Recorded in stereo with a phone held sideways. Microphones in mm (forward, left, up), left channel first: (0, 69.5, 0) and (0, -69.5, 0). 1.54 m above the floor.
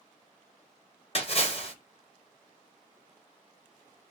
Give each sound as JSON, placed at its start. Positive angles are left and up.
{"t": 1.1, "sound": "a splash", "side_deg": 45, "distance_m": 1.1}